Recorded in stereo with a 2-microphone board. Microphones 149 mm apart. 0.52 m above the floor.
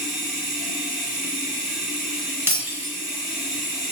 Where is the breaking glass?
15° right (ahead or behind), 0.7 m.